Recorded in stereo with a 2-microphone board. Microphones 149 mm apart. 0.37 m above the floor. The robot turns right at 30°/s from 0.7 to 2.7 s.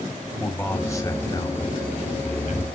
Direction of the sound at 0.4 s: 15° left.